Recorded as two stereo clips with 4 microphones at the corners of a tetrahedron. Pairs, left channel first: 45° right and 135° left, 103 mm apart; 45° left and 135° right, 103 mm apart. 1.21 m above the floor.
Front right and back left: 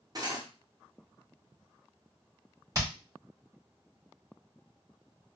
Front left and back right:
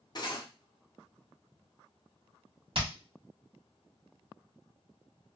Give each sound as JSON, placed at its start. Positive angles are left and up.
{"t": 0.1, "sound": "cutlery clinking", "azimuth_deg": 85, "distance_m": 0.8}
{"t": 2.8, "sound": "hammering", "azimuth_deg": -165, "distance_m": 1.4}